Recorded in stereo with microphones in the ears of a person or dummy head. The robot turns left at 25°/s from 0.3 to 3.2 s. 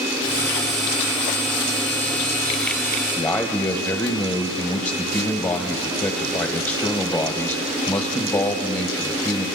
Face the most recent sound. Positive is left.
turn(degrees=20)  # may be behind; listen again after turning